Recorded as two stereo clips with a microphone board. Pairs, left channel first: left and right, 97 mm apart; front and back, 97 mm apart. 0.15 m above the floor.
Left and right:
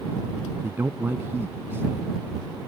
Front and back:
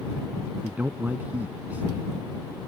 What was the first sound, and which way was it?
A man speaking, 125° right.